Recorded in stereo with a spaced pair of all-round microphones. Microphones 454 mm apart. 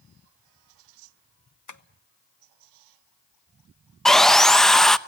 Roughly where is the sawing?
Centre.